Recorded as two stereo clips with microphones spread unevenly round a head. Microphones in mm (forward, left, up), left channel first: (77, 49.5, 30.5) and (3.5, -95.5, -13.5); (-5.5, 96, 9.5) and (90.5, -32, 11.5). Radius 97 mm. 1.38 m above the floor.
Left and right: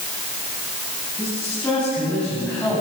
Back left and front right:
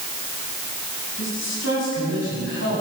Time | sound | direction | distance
1.2 | a man speaking | 145° left | 9 m